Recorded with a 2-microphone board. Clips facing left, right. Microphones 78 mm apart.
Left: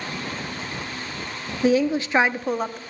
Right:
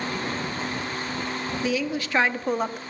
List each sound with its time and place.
1.6 s a woman speaking: 40° left (ahead or behind), 0.7 m; by 2.8 s 10° right (ahead or behind), 0.7 m